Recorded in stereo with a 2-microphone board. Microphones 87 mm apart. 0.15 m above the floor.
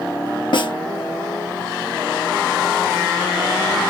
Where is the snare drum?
65° left (ahead or behind), 2.5 m.